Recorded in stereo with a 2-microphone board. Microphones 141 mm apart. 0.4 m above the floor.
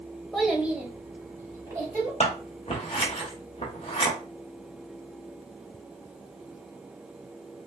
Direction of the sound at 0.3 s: Centre (ahead or behind).